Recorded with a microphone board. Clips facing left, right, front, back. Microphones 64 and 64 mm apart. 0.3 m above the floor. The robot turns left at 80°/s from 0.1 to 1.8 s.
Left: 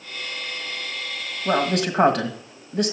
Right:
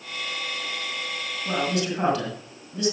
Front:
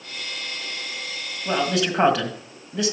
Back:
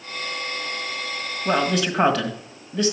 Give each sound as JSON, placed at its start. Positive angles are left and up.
{"t": 1.4, "sound": "a man speaking", "azimuth_deg": 110, "distance_m": 1.6}